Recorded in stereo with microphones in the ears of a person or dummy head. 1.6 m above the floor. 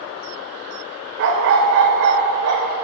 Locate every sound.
1.2 s a dog barking: 65° right (ahead or behind), 2.5 m